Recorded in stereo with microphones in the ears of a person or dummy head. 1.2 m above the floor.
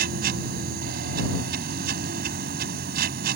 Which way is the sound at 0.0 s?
50° right (ahead or behind).